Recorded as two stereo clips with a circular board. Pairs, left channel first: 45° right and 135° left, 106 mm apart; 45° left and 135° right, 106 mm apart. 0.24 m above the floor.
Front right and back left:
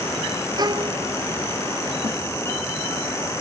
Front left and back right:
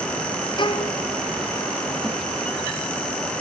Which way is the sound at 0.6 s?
85° left.